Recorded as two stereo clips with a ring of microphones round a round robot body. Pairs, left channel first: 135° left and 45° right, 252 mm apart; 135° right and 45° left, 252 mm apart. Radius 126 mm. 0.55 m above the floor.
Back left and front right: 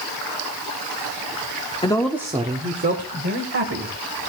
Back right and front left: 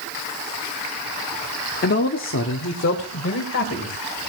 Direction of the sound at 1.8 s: 165° right.